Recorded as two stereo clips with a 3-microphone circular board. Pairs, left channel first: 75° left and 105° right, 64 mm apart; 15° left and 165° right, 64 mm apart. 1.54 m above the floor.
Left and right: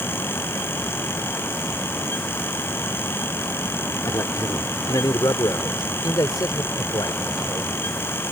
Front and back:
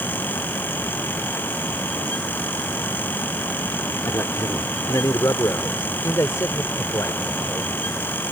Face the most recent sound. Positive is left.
turn(degrees=60)